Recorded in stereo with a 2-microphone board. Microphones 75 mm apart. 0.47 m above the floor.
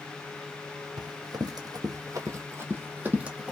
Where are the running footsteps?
70° right (ahead or behind), 1.2 m; by 3.5 s 15° right (ahead or behind), 1.0 m.